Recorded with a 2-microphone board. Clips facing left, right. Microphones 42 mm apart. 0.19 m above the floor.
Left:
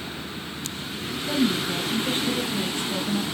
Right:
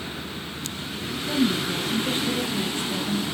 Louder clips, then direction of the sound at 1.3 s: Even; 30° left (ahead or behind).